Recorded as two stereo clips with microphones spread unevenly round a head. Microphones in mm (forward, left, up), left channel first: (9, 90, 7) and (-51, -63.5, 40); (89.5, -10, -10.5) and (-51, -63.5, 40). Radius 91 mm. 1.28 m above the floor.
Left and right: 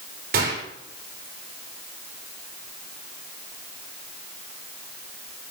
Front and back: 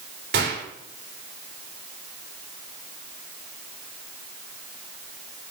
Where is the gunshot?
145° right, 5 m.